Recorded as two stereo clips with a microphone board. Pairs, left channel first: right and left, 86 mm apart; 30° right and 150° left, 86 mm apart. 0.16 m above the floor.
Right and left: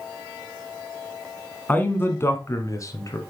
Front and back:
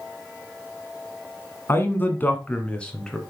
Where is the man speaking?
45° right, 1.1 m; by 3.2 s 110° right, 1.4 m.